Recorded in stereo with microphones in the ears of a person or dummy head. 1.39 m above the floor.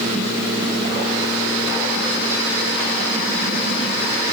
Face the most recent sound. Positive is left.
No sound to turn to.